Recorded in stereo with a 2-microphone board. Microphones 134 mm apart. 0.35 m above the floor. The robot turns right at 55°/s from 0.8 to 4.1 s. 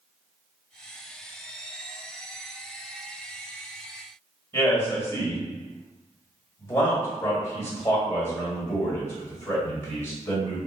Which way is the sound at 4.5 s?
20° left (ahead or behind).